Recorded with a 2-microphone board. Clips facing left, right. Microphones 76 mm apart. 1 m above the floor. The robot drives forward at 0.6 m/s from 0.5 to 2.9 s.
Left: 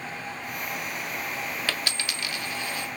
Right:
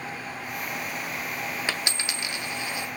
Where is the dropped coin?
20° right (ahead or behind), 0.6 m.